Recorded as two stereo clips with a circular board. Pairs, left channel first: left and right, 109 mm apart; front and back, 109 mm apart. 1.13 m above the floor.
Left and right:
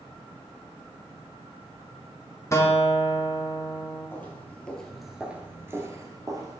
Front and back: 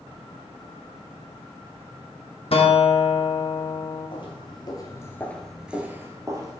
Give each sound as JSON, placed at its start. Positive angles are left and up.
{"t": 2.5, "sound": "a guitar", "azimuth_deg": 30, "distance_m": 1.1}
{"t": 4.1, "sound": "footsteps", "azimuth_deg": 20, "distance_m": 1.8}